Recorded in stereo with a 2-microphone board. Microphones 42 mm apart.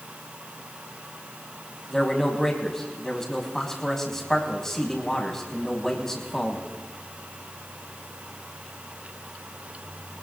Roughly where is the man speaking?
Centre.